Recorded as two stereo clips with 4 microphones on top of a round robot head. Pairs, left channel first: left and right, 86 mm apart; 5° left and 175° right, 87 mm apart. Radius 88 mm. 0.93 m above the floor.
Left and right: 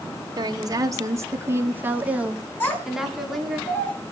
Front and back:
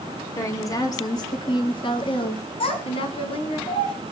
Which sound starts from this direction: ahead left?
A child speaking, at 2.6 s.